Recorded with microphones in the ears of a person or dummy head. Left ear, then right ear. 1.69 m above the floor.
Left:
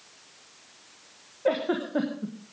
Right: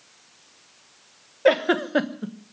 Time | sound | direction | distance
1.4 | a giggle | 40° right (ahead or behind) | 1.0 m